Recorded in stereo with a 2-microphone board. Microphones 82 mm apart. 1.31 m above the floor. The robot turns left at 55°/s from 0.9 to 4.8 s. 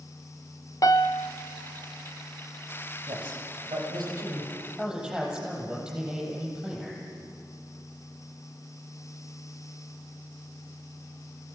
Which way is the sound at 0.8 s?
45° left (ahead or behind).